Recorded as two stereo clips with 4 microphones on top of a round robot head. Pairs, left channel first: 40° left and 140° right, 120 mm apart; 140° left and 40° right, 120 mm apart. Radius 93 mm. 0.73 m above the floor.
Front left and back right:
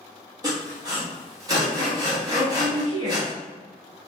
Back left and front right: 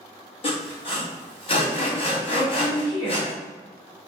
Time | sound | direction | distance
0.4 | sawing | 165° left | 1.3 m
2.3 | a woman speaking | 170° left | 1.2 m